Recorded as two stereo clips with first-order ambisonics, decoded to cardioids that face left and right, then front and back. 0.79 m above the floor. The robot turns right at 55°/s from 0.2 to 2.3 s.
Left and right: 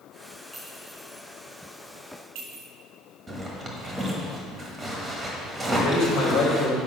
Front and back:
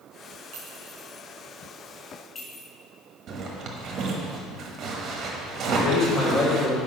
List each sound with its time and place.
0.5 s a clink: 165° right, 3 m; by 2.6 s 65° right, 3 m
3.3 s a zipper: 160° right, 1.2 m
5.7 s a man speaking: 55° left, 3 m